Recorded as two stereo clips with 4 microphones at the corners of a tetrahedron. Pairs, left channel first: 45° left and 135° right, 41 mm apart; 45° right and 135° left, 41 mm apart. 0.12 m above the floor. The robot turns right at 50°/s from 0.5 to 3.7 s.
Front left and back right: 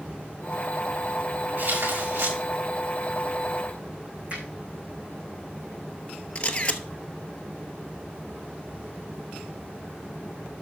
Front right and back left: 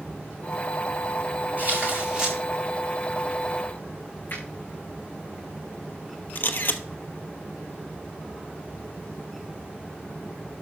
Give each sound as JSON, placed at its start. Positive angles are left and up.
{"t": 1.6, "sound": "tearing paper", "azimuth_deg": -175, "distance_m": 8.5}
{"t": 4.3, "sound": "a finger snap", "azimuth_deg": -75, "distance_m": 6.0}
{"t": 6.3, "sound": "a camera shutter", "azimuth_deg": -10, "distance_m": 1.0}